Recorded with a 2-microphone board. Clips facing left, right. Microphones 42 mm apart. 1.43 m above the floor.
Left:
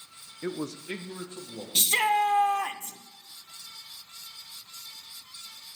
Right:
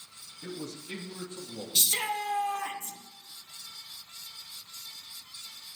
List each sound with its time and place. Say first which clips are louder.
0.4 s a man speaking: left 6 dB; 55° left (ahead or behind), 0.6 m; by 1.6 s 25° left (ahead or behind), 1.8 m
1.8 s a shout: left 8 dB; 40° left (ahead or behind), 0.7 m